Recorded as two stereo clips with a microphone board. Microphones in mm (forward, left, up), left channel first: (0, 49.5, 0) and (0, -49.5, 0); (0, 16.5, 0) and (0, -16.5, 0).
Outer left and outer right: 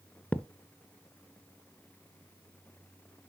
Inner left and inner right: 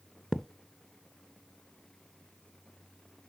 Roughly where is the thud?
Centre.